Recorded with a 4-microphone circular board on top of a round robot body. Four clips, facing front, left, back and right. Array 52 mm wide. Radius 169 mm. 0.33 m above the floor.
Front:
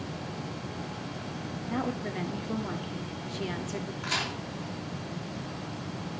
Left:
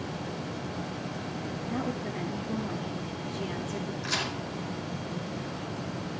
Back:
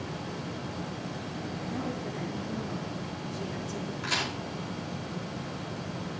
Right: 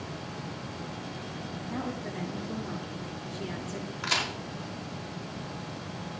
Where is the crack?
90° right, 5.5 m.